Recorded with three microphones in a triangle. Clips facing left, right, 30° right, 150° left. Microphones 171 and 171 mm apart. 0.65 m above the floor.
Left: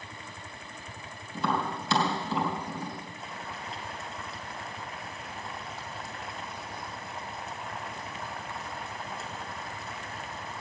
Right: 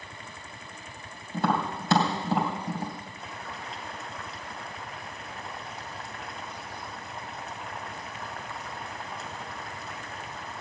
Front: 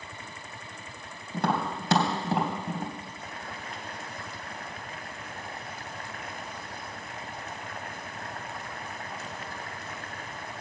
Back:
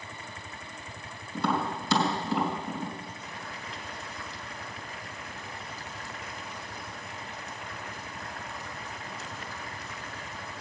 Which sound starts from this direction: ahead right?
Tapping, at 1.3 s.